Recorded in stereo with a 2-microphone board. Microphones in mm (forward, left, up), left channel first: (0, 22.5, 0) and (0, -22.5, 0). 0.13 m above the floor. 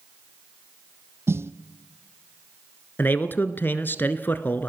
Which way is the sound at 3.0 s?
45° left (ahead or behind).